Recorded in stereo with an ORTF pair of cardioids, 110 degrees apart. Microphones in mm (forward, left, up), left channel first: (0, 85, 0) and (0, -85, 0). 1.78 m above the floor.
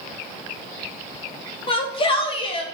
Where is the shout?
30° left, 3 m.